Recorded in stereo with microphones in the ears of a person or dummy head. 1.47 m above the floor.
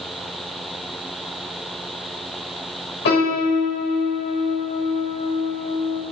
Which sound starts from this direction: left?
A piano, at 3.0 s.